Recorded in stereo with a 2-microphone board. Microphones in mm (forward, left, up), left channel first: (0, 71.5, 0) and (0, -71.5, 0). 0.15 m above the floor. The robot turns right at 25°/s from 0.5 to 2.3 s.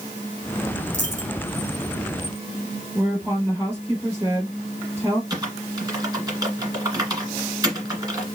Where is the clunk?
No clunk in this recording.